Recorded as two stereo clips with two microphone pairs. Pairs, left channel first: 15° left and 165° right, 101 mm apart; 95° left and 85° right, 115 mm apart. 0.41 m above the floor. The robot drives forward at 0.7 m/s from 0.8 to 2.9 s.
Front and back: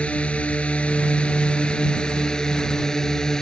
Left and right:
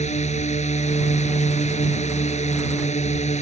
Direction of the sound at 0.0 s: 95° left.